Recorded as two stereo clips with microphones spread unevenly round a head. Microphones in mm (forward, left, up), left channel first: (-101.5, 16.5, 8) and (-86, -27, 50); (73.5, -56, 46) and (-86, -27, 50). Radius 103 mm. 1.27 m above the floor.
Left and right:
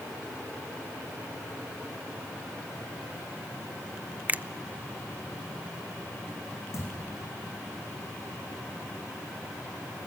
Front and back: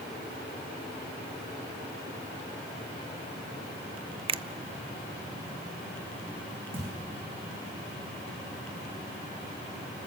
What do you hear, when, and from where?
4.3 s a finger snap: 135° right, 0.6 m
6.7 s a thud: 125° left, 5.5 m